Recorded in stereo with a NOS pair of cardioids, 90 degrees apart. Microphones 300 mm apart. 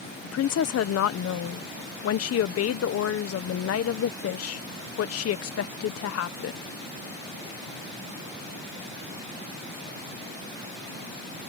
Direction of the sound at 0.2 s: 55° left.